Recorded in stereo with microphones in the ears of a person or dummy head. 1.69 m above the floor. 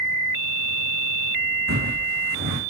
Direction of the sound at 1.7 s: 65° right (ahead or behind).